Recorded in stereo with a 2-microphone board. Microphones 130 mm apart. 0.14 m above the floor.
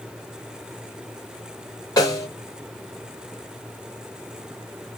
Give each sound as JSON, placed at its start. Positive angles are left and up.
{"t": 2.0, "sound": "a snare drum", "side_deg": 30, "distance_m": 1.4}